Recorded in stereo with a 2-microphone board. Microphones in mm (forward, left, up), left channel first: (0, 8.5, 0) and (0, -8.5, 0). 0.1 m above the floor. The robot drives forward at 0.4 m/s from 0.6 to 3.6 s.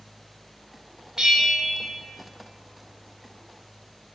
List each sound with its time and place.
1.2 s a bell: 35° right (ahead or behind), 0.9 m; by 1.9 s 30° right (ahead or behind), 1.0 m